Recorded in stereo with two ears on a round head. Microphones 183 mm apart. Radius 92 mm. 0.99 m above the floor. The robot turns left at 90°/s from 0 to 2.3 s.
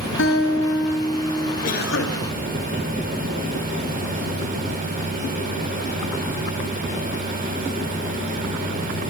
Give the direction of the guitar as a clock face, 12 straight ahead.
8 o'clock.